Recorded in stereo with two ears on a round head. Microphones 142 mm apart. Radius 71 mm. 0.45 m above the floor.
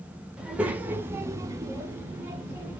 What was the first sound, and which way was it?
A child speaking, 5° right (ahead or behind).